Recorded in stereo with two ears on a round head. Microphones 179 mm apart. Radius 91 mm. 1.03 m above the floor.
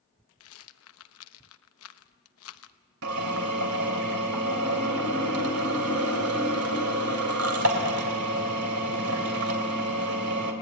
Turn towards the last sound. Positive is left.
turn(degrees=-75)  # may be behind; listen again after turning